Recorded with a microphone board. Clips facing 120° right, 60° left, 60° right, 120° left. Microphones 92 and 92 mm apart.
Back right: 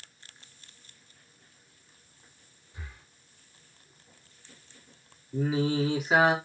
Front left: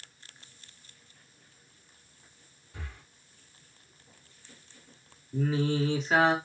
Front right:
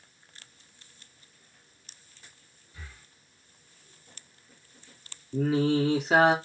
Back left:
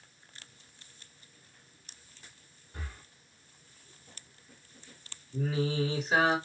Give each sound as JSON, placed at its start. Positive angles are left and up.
{"t": 2.7, "sound": "breathing", "azimuth_deg": 80, "distance_m": 2.5}
{"t": 5.3, "sound": "singing", "azimuth_deg": -40, "distance_m": 2.0}